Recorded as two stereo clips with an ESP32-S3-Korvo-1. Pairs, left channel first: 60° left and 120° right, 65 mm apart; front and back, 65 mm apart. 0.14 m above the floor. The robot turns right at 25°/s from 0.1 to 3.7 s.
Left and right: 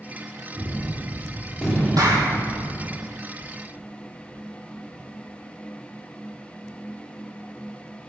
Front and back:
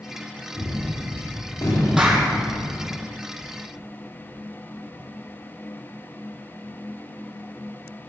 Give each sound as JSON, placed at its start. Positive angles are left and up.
{"t": 0.5, "sound": "a gunshot", "azimuth_deg": -50, "distance_m": 5.0}
{"t": 2.0, "sound": "a clap", "azimuth_deg": -100, "distance_m": 4.0}